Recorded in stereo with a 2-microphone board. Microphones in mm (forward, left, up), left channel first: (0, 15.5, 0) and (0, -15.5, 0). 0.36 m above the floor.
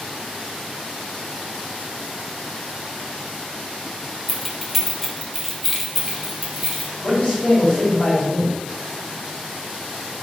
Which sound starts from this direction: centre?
Keys jangling, at 4.3 s.